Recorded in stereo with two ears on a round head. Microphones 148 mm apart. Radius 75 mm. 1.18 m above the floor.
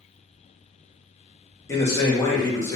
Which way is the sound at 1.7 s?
15° left (ahead or behind).